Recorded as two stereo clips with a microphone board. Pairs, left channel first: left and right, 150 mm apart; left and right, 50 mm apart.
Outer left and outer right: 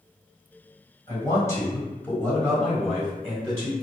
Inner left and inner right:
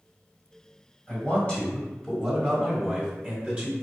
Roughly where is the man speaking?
Left.